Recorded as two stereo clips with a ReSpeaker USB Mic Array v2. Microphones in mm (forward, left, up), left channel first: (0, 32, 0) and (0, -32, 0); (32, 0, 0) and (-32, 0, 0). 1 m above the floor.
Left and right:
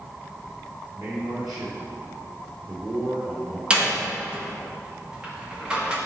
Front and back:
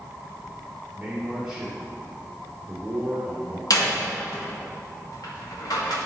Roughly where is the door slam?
Ahead.